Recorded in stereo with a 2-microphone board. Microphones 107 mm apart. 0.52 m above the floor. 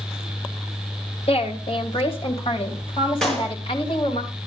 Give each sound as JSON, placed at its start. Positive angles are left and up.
{"t": 1.3, "sound": "a woman speaking", "side_deg": 65, "distance_m": 2.5}
{"t": 3.2, "sound": "a clap", "side_deg": 5, "distance_m": 5.0}